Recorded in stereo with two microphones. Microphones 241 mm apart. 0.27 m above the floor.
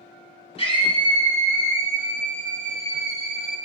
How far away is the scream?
About 2 m.